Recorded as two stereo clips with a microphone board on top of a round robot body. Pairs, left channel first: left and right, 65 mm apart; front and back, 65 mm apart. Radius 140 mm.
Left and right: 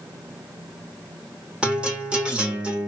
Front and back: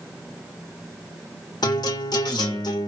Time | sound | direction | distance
1.6 | a guitar | 15° right | 1.8 m